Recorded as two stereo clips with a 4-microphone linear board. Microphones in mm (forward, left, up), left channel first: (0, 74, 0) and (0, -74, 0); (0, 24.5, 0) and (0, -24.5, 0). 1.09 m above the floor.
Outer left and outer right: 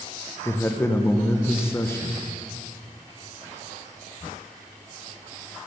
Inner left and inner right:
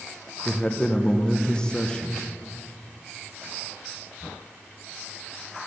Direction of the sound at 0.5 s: 15° left (ahead or behind).